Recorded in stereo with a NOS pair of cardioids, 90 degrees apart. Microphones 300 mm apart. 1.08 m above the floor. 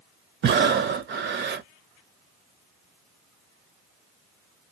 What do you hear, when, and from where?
0.4 s breathing: 40° right, 0.5 m